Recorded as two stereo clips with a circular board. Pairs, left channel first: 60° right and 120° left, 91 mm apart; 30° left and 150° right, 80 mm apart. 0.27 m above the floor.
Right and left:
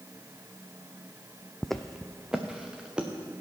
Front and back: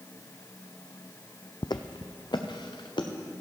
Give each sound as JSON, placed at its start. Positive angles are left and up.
{"t": 1.6, "sound": "footsteps", "azimuth_deg": 25, "distance_m": 0.5}